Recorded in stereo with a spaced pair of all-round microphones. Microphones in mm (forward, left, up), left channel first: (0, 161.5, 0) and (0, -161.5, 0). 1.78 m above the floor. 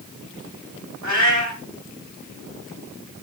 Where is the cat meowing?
60° right (ahead or behind), 2.5 m.